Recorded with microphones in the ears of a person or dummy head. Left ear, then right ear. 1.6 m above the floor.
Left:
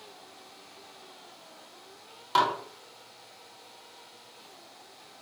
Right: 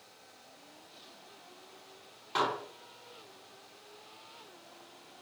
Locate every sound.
2.4 s dishes clattering: 40° left (ahead or behind), 1.5 m